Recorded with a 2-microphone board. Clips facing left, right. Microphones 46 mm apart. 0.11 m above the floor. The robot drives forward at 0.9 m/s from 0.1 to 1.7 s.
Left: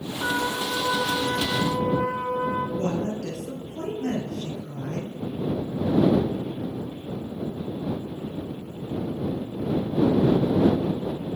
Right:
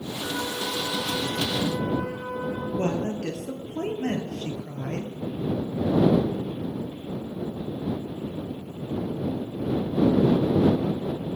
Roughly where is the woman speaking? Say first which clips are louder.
Even; right.